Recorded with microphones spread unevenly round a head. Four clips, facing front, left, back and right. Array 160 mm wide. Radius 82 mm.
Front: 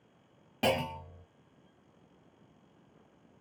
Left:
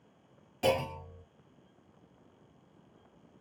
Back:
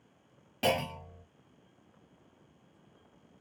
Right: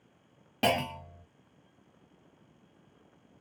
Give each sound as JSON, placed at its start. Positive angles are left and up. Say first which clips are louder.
{"t": 0.6, "sound": "a clunk", "louder": "right 1 dB, even", "azimuth_deg": -75, "distance_m": 1.2}